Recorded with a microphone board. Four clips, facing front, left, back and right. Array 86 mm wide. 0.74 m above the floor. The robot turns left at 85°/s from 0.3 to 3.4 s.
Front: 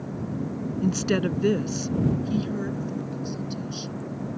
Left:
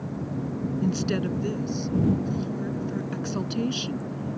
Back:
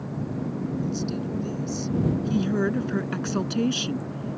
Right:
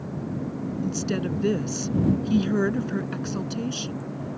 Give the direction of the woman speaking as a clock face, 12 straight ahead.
11 o'clock.